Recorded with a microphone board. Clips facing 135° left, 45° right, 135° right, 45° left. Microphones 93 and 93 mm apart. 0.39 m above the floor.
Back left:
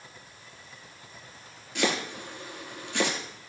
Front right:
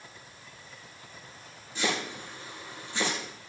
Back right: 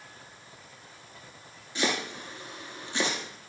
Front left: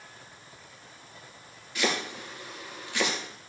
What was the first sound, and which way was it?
Chopping, 160° left.